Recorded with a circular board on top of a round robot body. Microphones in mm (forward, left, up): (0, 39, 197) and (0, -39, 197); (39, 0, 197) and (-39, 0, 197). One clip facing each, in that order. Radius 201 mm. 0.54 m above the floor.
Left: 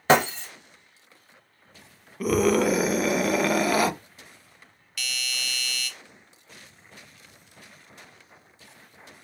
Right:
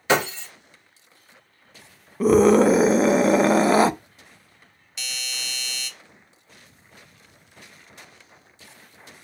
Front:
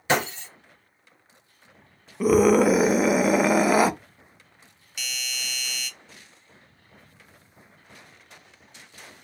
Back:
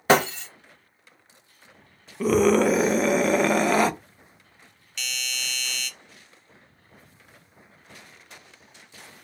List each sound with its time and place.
0.1 s breaking glass: 140° left, 0.8 m
2.2 s a scream: 75° right, 0.6 m
5.0 s a doorbell: 70° right, 1.1 m